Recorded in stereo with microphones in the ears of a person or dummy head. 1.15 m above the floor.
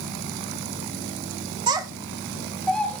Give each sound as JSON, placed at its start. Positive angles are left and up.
{"t": 1.7, "sound": "a child speaking", "side_deg": -25, "distance_m": 0.6}